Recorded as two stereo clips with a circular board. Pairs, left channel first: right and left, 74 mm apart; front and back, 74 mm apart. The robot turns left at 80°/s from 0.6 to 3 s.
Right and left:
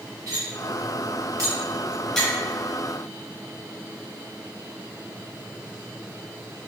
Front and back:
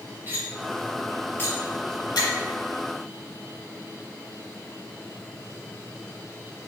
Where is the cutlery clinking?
120° left, 1.6 m; by 2.3 s 15° right, 1.6 m.